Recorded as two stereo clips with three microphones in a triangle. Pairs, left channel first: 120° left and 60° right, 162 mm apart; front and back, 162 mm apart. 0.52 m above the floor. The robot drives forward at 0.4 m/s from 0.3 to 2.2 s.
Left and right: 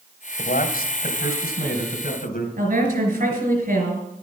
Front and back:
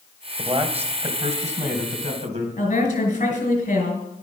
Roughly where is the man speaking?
Behind left.